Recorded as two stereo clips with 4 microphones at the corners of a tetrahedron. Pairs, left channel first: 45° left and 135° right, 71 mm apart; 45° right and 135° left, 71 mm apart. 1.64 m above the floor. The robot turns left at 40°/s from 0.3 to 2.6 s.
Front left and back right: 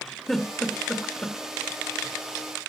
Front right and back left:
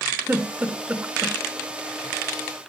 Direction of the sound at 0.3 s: 125° left.